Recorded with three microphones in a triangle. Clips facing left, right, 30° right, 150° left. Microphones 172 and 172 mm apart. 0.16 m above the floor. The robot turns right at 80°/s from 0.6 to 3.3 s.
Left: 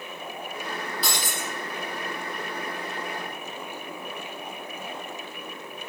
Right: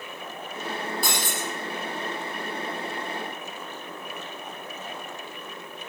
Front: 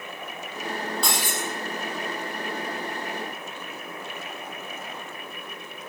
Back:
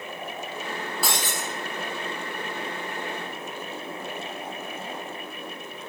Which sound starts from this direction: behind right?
Breaking glass, at 1.0 s.